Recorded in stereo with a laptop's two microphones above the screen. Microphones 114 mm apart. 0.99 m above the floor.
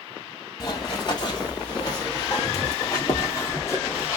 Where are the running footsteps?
35° left (ahead or behind), 1.3 m; by 4.2 s 25° left (ahead or behind), 1.8 m.